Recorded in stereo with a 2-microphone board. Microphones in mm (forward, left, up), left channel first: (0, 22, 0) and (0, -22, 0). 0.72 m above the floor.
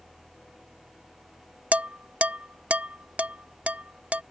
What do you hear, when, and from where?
1.7 s dishes clattering: 30° right (ahead or behind)